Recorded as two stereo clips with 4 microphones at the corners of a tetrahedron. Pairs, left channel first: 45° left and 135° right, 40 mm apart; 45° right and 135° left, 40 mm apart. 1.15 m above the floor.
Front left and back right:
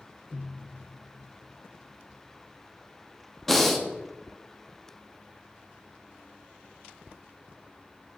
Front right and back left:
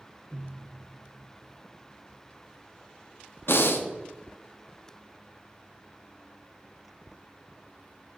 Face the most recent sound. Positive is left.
turn(degrees=-40)